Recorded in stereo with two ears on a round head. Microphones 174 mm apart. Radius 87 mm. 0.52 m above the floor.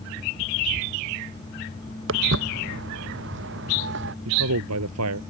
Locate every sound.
2.1 s footsteps: 65° right (ahead or behind); by 4.2 s 60° right (ahead or behind)
4.2 s a man speaking: 80° right